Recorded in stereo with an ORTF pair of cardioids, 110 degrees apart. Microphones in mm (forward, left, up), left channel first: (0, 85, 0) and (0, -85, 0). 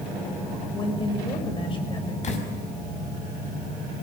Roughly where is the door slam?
Ahead left.